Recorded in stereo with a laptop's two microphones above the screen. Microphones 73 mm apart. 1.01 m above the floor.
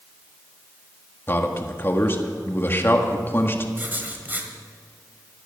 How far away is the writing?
About 1.4 m.